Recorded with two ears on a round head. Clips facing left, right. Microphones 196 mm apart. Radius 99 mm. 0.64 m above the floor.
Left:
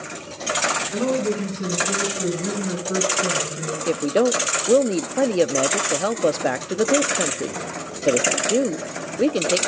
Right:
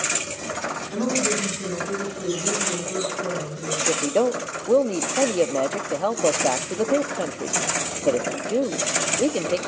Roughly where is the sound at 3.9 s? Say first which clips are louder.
Left 2 dB; centre.